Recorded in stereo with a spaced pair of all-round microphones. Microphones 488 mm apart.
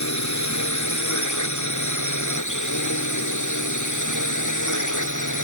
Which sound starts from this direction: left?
A drone, at 0.0 s.